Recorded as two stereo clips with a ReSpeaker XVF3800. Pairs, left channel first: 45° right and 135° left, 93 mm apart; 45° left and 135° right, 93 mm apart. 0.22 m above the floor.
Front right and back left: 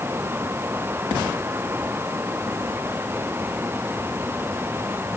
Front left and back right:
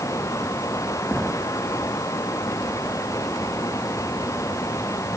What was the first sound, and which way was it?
Only background noise.